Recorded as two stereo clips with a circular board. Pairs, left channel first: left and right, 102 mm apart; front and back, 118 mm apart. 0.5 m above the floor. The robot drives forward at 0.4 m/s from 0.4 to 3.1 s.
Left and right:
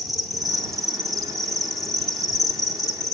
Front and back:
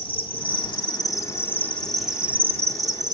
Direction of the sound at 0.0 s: Straight ahead.